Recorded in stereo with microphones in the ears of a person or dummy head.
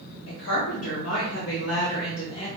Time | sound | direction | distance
0.3 | a woman speaking | 80° left | 1.4 m